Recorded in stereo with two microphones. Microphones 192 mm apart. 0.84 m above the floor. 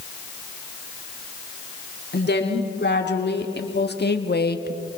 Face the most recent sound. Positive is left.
turn(degrees=55)  # may be behind; listen again after turning